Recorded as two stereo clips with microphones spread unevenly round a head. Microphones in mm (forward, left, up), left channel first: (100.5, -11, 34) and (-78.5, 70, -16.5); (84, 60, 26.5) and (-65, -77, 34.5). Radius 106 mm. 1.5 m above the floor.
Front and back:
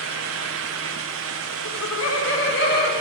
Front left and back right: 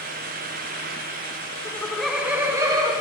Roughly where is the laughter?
Ahead right.